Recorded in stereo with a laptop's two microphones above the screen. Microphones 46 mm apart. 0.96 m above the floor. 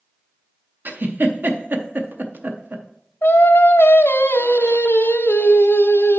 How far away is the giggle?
About 0.6 m.